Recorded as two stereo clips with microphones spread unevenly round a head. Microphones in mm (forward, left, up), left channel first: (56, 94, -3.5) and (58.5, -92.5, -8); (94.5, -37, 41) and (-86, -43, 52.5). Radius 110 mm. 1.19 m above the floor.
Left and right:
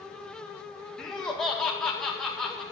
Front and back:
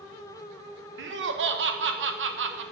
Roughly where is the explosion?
No explosion in this recording.